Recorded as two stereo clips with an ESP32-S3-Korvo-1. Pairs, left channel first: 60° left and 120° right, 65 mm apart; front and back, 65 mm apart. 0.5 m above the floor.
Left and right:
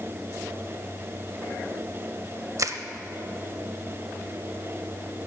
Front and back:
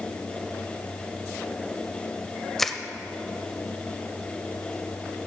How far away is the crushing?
About 0.6 m.